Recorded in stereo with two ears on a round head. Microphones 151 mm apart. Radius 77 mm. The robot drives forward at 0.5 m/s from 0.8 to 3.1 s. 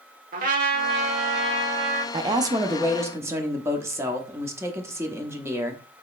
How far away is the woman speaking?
About 0.6 m.